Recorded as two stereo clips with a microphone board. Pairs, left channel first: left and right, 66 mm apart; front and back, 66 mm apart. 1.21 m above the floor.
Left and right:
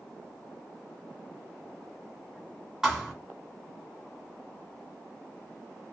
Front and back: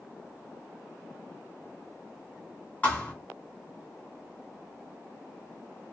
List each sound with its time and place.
2.8 s a thud: 20° right, 1.2 m